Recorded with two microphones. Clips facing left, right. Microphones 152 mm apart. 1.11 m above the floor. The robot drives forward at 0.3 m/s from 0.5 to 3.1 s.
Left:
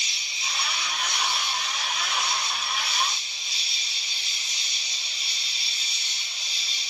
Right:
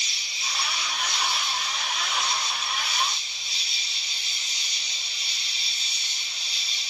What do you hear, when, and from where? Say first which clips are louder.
0.0 s an insect: even; 20° left (ahead or behind), 0.8 m; by 6.9 s 10° left (ahead or behind), 1.5 m